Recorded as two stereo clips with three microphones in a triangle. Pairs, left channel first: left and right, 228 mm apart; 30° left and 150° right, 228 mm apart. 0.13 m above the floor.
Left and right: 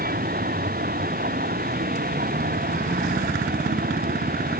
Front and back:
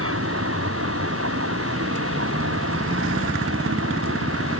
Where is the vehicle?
140° right.